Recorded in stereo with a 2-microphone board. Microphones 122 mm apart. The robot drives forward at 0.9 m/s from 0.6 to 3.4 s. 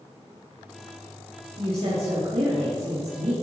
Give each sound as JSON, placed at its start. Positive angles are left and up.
{"t": 1.6, "sound": "a woman speaking", "side_deg": -60, "distance_m": 3.5}